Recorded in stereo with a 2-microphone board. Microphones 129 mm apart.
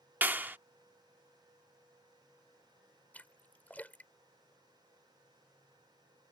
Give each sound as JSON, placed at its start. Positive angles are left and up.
{"t": 0.2, "sound": "a clap", "side_deg": -15}
{"t": 3.1, "sound": "a splash", "side_deg": 15}